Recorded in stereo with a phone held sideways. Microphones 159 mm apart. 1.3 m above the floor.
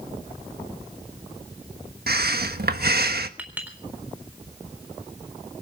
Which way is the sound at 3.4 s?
10° right (ahead or behind).